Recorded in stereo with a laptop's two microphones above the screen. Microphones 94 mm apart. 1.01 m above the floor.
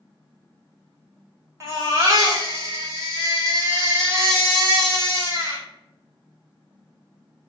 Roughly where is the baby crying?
Right.